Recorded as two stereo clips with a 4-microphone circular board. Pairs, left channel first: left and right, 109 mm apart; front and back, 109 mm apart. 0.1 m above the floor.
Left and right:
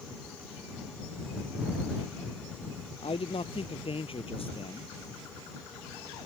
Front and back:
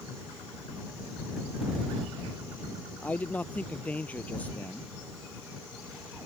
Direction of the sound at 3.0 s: 75° left.